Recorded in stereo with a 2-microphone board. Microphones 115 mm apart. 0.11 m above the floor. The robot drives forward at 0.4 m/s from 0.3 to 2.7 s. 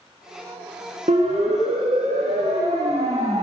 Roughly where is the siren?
Right.